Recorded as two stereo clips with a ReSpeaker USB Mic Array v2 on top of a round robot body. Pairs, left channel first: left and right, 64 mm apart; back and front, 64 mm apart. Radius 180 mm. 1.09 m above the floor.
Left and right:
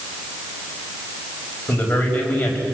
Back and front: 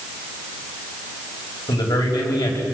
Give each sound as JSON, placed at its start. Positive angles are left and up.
{"t": 1.7, "sound": "a man speaking", "azimuth_deg": 160, "distance_m": 5.5}